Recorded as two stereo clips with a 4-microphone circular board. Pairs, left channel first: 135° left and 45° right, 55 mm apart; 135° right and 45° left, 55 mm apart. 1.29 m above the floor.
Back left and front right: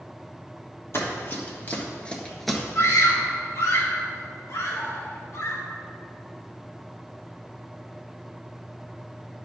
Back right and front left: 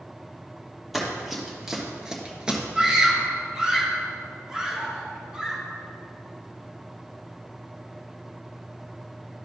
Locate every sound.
0.9 s running footsteps: 130° left, 2 m; by 2.6 s 30° left, 1.3 m
2.8 s a scream: 120° left, 1.9 m